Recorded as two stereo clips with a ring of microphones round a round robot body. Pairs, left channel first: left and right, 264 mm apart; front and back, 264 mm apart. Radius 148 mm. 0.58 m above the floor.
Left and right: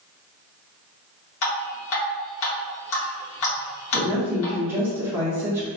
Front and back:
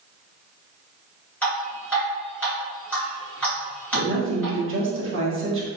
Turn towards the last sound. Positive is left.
turn(degrees=-170)